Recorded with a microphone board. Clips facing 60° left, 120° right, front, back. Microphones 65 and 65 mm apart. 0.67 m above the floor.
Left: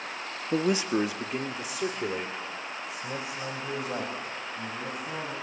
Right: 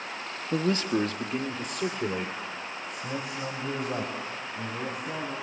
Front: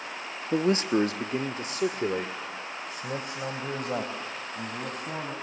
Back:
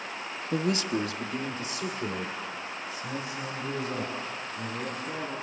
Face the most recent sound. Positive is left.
turn(degrees=-30)